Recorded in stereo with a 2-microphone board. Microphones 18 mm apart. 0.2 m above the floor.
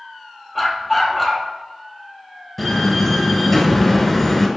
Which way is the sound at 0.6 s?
5° right (ahead or behind).